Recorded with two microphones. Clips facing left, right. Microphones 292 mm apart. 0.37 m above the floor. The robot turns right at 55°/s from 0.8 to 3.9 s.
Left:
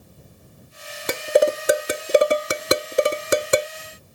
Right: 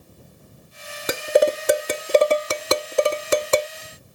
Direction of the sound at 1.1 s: 5° right (ahead or behind).